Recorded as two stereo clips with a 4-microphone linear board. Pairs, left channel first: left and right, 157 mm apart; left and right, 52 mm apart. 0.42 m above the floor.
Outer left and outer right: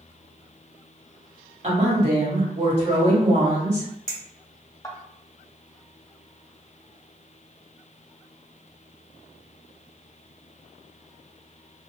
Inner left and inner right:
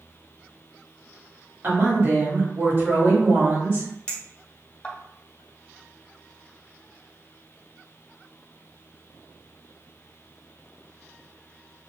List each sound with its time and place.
1.6 s a woman speaking: 45° right (ahead or behind), 1.9 m
4.1 s a clink: 20° left (ahead or behind), 1.1 m